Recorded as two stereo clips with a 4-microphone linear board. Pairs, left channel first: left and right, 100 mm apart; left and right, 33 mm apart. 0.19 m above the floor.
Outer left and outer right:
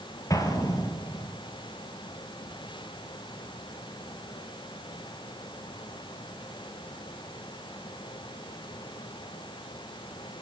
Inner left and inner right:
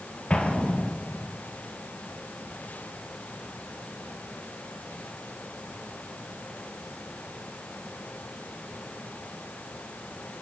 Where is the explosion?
35° left (ahead or behind), 2 m.